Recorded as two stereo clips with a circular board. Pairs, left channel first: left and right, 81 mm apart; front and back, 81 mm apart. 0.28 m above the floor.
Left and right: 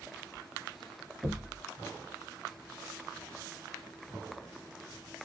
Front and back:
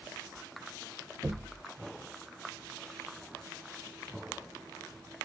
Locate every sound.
1.2 s knocking: 175° right, 1.5 m